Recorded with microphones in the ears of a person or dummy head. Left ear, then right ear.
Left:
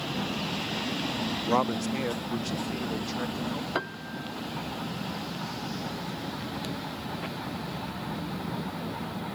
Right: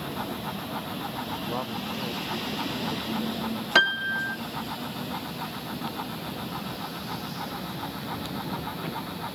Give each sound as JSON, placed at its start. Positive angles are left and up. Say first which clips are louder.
{"t": 1.4, "sound": "a man speaking", "louder": "left 5 dB", "side_deg": 80}
{"t": 3.8, "sound": "a piano", "louder": "right 12 dB", "side_deg": -75}